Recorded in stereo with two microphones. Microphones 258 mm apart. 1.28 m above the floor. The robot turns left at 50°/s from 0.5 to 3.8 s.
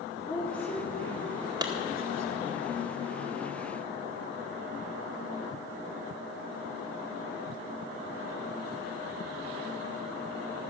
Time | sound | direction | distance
0.3 | a woman speaking | 15° left (ahead or behind) | 3.5 m
1.6 | a clap | 15° right (ahead or behind) | 1.9 m